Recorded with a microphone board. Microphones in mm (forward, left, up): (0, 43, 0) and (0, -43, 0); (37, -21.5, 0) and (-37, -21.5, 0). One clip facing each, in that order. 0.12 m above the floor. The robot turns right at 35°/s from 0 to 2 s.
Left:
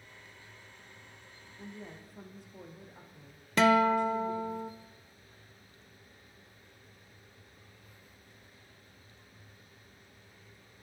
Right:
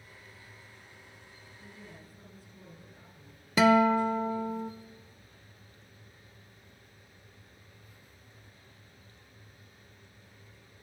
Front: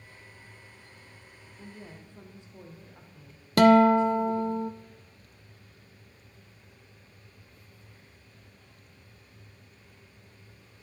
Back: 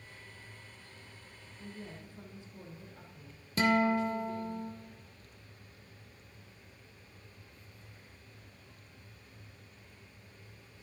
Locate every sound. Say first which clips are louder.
1.6 s a woman speaking: left 5 dB, even; 50° left, 4 m; by 4.6 s 60° left, 4 m
3.6 s a guitar: right 2 dB, front 10 dB; 5° right, 0.6 m